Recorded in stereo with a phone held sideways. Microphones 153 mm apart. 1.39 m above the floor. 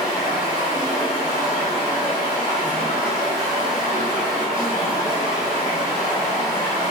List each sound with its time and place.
0.0 s running water: 20° left (ahead or behind), 1.8 m